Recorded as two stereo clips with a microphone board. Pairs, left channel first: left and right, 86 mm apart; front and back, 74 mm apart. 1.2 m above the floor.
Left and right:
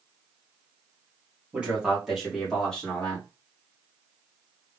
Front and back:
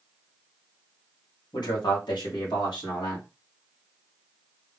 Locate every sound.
1.5 s a man speaking: 15° right, 2.5 m; by 3.2 s 15° left, 2.5 m